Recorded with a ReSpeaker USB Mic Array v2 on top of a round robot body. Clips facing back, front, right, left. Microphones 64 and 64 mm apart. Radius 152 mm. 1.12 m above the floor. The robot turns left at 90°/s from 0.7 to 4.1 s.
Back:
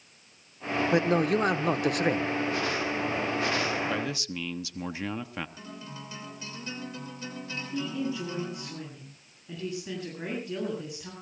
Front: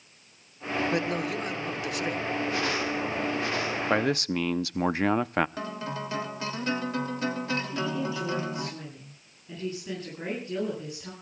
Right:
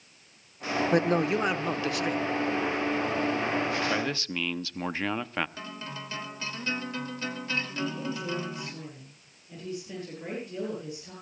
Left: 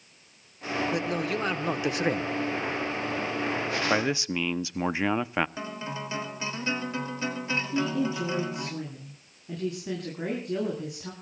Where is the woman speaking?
95° left, 10 m.